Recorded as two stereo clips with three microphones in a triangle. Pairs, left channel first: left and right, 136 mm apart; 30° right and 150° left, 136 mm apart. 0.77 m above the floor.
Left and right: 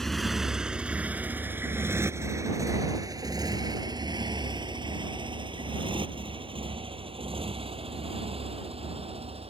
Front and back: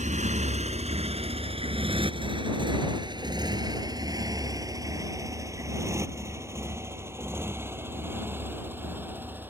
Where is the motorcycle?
Straight behind; by 9.5 s 135° right.